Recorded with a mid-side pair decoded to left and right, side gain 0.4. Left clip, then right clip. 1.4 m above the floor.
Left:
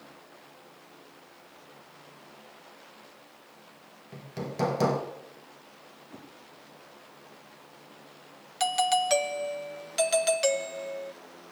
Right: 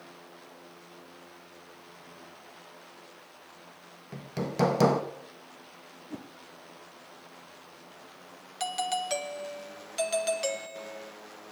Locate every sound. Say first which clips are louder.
4.1 s hammering: right 3 dB; 35° right, 1.9 m
6.1 s a whoosh: right 7 dB; 60° right, 1.2 m
8.6 s a doorbell: left 6 dB; 35° left, 1.0 m